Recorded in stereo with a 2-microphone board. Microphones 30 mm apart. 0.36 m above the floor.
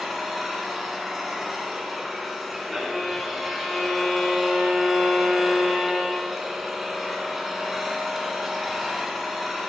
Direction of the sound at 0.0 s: 5° right (ahead or behind).